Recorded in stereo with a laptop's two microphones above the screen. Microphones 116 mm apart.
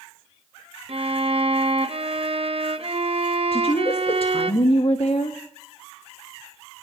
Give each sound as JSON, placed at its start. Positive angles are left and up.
{"t": 0.9, "sound": "a violin", "side_deg": -55, "distance_m": 0.8}
{"t": 3.5, "sound": "a woman speaking", "side_deg": 55, "distance_m": 1.2}